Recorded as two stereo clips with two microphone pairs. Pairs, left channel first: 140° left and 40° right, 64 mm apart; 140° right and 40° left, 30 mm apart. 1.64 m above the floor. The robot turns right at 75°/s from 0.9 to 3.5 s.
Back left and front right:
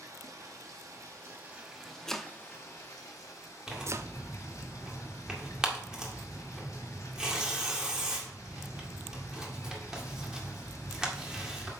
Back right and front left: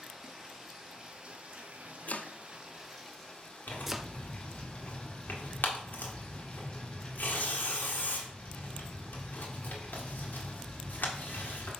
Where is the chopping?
140° right, 0.5 m; by 4.1 s 35° right, 0.5 m.